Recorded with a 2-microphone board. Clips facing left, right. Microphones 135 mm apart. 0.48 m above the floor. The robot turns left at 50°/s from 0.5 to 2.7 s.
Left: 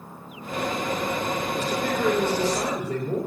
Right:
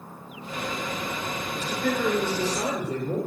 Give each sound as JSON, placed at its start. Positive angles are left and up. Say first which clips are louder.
{"t": 1.6, "sound": "a man speaking", "louder": "right 2 dB", "azimuth_deg": 145, "distance_m": 8.5}